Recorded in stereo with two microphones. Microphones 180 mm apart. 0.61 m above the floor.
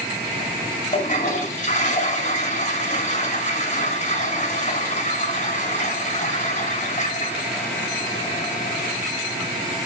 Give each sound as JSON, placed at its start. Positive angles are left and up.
{"t": 0.9, "sound": "a toilet flushing", "side_deg": 45, "distance_m": 4.0}